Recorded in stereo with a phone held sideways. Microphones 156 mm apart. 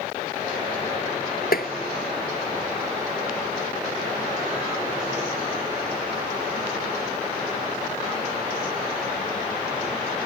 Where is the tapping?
75° left (ahead or behind).